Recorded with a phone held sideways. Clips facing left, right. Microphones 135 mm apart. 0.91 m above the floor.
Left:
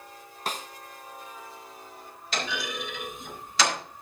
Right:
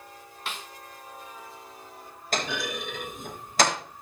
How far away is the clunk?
About 4 m.